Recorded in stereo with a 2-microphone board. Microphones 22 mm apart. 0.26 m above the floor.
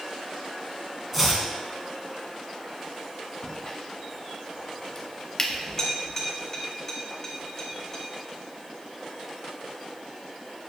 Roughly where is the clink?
Centre.